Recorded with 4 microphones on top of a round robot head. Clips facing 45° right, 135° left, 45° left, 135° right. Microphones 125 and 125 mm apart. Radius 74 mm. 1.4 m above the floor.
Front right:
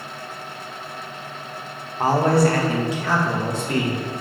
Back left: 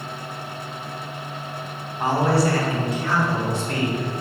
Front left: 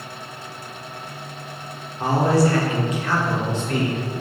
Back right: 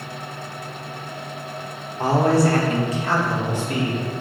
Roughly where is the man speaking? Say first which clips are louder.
Front right 3 dB, back right 1 dB; right.